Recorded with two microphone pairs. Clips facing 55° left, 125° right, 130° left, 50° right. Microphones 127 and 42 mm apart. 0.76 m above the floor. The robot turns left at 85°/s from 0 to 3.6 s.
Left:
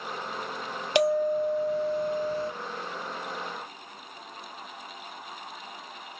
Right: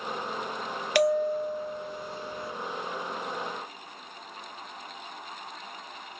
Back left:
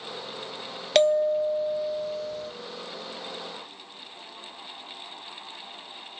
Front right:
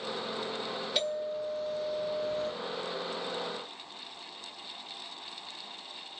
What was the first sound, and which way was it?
A bell, 125° left.